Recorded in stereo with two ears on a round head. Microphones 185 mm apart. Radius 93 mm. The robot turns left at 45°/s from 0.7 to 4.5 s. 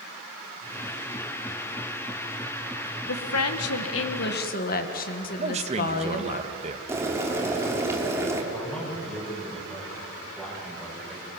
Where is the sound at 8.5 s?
5° left (ahead or behind), 7.5 m.